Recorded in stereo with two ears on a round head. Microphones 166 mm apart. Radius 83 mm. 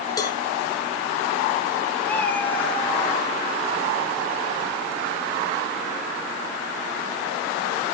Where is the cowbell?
20° left (ahead or behind), 1.9 m.